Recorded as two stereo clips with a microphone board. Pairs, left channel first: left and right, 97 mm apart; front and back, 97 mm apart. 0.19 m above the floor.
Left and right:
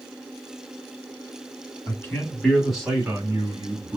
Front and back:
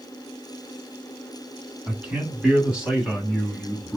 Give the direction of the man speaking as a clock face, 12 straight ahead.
8 o'clock.